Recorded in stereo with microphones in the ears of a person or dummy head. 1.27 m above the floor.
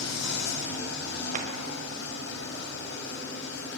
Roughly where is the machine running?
Left.